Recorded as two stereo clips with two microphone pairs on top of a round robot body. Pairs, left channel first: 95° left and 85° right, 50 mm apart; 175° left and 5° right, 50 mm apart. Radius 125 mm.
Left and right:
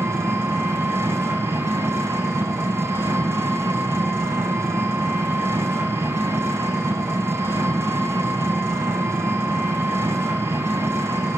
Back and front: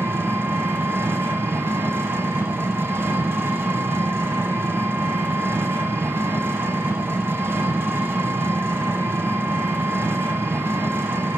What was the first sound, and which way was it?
An engine running, 45° right.